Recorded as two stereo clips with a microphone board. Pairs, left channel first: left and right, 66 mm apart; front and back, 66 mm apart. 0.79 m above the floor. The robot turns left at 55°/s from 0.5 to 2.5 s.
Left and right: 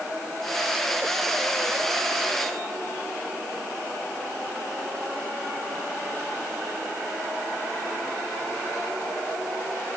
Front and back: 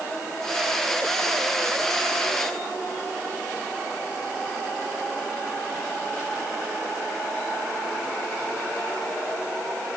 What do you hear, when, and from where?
Only background noise.